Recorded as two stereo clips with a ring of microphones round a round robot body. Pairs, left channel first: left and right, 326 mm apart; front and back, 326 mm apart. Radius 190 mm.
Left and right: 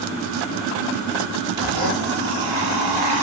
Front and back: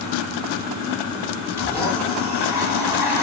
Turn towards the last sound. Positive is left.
turn(degrees=-85)